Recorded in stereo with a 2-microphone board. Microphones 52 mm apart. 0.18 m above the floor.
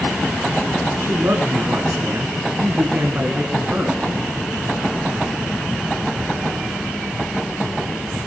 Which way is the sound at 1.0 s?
50° right (ahead or behind).